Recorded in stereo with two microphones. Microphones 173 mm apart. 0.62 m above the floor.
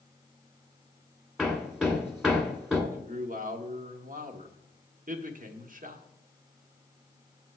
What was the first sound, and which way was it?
Hammering, centre (ahead or behind).